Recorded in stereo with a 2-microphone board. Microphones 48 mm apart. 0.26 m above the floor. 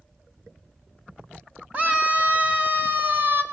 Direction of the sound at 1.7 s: 25° right (ahead or behind).